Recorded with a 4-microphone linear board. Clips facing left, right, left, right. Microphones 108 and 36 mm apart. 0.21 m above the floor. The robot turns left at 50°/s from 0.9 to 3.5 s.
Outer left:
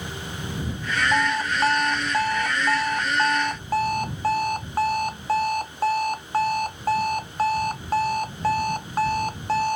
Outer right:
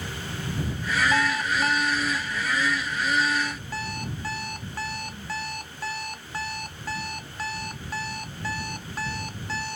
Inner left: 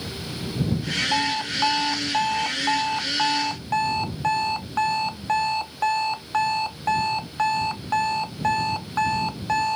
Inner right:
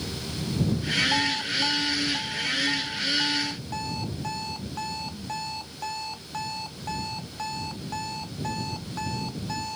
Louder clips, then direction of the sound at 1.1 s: Outer left 2 dB, inner left 2 dB; 170° left.